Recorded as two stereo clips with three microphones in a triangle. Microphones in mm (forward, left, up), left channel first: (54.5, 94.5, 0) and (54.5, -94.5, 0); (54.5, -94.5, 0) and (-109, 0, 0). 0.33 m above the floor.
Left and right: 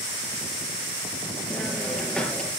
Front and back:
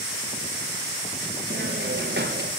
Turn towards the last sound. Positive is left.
turn(degrees=175)